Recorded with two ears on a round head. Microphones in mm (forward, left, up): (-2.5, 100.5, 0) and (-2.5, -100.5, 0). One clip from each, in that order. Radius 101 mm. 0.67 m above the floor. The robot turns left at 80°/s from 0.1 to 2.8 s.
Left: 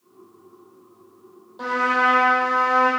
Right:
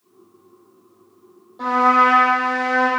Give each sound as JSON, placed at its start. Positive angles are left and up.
{"t": 1.6, "sound": "a trumpet", "azimuth_deg": 30, "distance_m": 3.5}